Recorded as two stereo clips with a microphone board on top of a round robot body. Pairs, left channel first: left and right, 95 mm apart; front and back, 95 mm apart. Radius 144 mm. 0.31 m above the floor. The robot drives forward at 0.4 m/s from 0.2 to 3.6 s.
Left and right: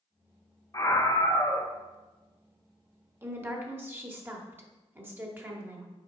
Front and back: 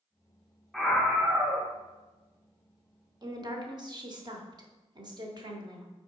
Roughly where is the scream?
Left.